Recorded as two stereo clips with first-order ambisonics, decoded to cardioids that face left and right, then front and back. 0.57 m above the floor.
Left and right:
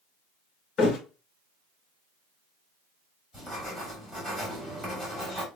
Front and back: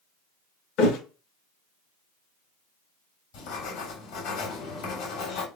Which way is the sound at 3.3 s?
5° right.